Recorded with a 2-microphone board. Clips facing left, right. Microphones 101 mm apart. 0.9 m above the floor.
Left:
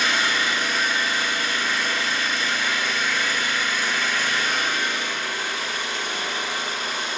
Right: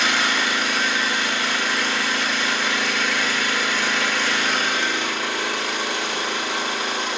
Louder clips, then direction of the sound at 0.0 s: Right 2 dB; 70° right (ahead or behind).